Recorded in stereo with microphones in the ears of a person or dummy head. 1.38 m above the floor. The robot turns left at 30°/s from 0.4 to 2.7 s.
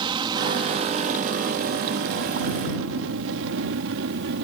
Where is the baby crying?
No baby crying in this recording.